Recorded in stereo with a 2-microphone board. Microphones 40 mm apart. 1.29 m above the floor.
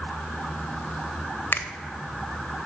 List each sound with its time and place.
1.5 s a finger snap: 65° left (ahead or behind), 0.5 m